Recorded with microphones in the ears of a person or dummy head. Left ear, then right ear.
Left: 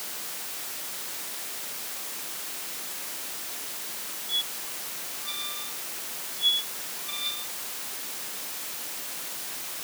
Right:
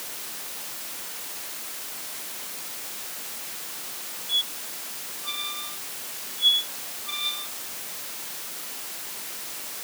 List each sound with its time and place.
4.3 s a squeak: 15° right (ahead or behind)